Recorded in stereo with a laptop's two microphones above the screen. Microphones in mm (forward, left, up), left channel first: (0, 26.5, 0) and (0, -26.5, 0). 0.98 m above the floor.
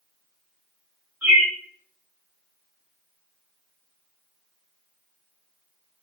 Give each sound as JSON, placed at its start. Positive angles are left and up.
{"t": 1.2, "sound": "a bird", "side_deg": -35, "distance_m": 1.8}